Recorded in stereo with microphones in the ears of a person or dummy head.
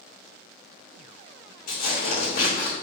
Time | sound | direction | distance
1.7 | tearing paper | 50° left (ahead or behind) | 2.5 m